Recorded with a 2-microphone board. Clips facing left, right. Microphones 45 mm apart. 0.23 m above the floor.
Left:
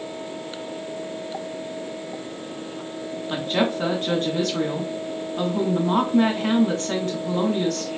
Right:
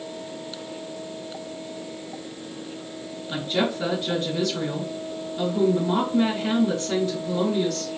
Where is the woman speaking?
50° left (ahead or behind), 1.9 m.